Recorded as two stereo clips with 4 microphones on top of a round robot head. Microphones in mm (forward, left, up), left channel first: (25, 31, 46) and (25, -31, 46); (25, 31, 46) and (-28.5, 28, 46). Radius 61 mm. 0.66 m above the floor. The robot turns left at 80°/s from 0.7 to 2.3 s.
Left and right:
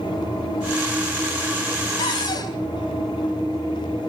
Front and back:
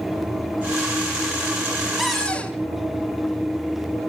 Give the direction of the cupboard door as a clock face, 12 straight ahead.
9 o'clock.